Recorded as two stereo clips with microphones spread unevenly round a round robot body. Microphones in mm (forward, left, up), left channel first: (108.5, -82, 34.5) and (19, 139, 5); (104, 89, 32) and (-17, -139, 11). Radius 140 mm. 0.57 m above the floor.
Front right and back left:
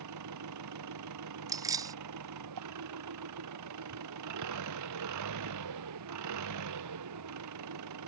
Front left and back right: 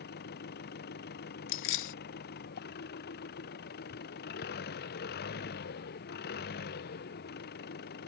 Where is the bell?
No bell in this recording.